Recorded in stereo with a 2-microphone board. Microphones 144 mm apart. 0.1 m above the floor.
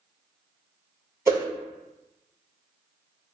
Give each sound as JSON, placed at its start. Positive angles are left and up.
{"t": 1.3, "sound": "a whoosh", "side_deg": -20, "distance_m": 0.8}